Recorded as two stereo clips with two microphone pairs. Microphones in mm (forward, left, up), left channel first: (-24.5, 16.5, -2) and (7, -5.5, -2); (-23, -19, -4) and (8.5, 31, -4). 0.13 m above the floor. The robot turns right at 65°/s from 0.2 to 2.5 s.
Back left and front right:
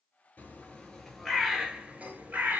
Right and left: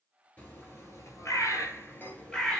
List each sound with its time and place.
0.4 s a bird: straight behind, 1.1 m; by 2.6 s 45° right, 1.1 m